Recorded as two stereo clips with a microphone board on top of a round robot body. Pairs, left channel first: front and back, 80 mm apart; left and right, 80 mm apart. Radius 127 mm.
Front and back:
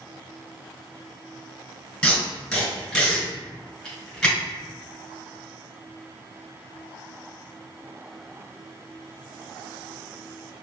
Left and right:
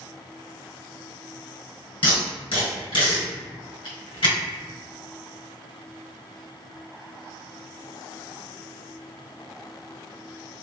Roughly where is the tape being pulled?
Left.